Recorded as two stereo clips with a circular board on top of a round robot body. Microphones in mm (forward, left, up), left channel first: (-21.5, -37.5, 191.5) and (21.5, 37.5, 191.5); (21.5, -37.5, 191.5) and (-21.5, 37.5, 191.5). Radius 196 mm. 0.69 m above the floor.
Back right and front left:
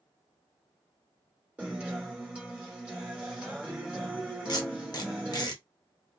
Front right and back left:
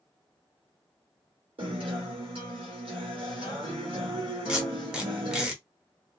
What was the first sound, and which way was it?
A guitar, 140° left.